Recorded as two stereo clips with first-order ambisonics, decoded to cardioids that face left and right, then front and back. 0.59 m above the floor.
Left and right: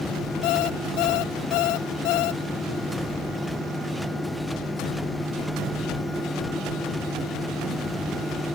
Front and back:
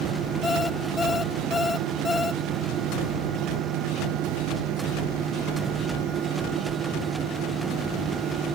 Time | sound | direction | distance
0.4 | an alarm clock | 70° left | ?